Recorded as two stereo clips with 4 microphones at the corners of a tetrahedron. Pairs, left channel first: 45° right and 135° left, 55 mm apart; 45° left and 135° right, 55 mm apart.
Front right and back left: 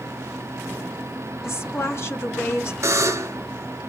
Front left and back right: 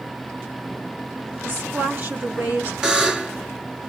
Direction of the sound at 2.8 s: 155° left.